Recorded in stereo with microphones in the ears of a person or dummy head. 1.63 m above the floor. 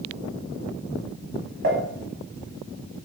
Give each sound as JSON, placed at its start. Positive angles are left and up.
{"t": 1.6, "sound": "dishes clattering", "side_deg": -45, "distance_m": 1.0}